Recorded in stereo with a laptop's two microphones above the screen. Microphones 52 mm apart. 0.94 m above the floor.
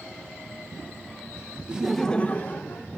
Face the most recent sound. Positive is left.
turn(degrees=55)  # may be behind; listen again after turning